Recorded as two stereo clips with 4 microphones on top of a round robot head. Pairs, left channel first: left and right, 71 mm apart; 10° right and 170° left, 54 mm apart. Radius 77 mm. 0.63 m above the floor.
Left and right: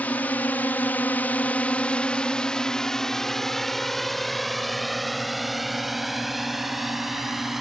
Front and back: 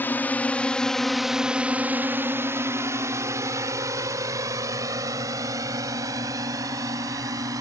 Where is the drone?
30° left; by 7.6 s 175° right.